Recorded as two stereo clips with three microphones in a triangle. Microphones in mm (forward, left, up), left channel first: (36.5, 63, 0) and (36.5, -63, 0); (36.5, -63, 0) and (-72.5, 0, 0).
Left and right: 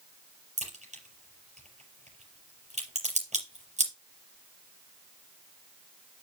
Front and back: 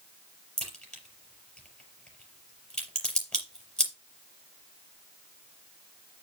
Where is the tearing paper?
I don't hear tearing paper.